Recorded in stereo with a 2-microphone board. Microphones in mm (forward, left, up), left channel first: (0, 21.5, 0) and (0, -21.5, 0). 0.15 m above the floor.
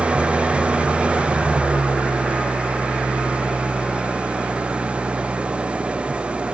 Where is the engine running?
25° right (ahead or behind).